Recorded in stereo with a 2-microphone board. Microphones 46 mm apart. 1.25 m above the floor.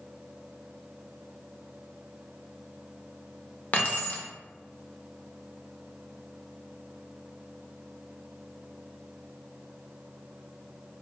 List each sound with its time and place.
3.7 s keys jangling: 35° left (ahead or behind), 0.7 m